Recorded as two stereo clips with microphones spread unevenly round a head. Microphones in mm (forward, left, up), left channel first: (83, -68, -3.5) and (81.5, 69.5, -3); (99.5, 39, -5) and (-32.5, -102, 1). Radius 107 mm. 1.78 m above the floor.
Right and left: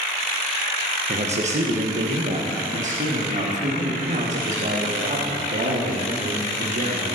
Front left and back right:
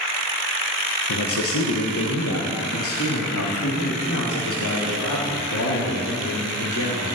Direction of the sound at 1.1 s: 55° left.